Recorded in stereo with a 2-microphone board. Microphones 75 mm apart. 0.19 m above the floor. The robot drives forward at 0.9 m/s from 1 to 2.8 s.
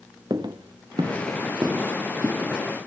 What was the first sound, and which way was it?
Footsteps, 80° right.